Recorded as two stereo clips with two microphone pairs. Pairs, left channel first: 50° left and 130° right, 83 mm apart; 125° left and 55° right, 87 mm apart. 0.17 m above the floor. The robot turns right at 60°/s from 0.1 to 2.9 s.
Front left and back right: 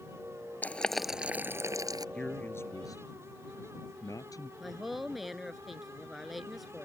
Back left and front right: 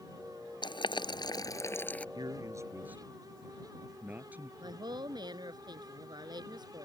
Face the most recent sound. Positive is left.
turn(degrees=-45)